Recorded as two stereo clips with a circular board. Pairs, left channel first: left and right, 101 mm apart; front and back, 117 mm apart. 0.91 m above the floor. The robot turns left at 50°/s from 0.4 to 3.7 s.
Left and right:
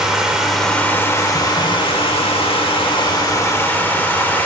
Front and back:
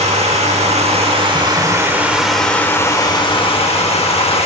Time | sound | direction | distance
0.0 | running water | 175° right | 0.9 m